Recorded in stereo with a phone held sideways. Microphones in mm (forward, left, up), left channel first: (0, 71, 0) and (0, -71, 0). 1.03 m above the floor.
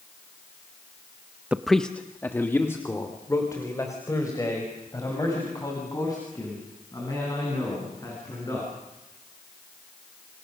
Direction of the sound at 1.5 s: 10° right (ahead or behind).